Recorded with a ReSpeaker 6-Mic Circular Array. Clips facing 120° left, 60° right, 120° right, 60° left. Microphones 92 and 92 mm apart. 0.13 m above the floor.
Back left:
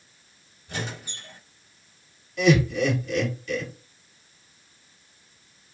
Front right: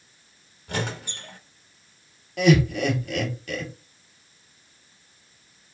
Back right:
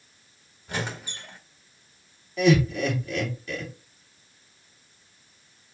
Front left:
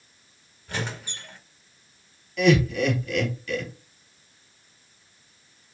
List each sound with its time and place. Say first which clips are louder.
0.7 s a squeak: front right 4 dB, even; 45° right, 1.1 m
2.4 s laughter: front right 1 dB, front left 1 dB; 65° right, 2.5 m